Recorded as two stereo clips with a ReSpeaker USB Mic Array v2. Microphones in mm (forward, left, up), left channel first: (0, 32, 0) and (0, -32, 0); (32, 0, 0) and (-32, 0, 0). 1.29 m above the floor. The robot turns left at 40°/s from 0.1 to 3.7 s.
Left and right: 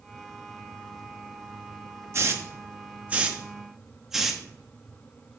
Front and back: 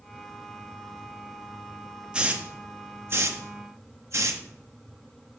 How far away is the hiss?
About 0.9 m.